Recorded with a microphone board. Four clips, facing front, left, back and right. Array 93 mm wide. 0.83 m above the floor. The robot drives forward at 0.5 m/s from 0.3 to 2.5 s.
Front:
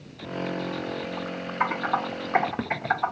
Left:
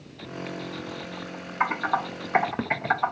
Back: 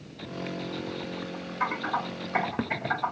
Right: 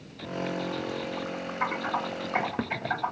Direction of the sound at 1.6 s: 55° left.